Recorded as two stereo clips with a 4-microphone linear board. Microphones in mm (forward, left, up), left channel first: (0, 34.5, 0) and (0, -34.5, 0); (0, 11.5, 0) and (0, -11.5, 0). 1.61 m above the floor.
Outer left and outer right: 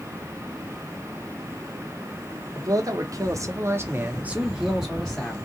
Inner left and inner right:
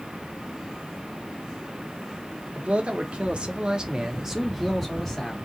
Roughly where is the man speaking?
Right.